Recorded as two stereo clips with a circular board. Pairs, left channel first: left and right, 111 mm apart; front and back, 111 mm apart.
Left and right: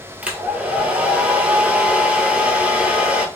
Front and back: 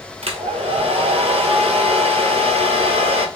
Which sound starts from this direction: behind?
A hair dryer, at 0.2 s.